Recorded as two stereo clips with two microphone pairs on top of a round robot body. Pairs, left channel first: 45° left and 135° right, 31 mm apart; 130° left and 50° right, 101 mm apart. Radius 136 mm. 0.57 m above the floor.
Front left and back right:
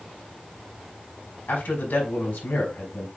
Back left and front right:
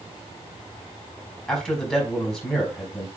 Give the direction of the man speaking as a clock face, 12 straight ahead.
10 o'clock.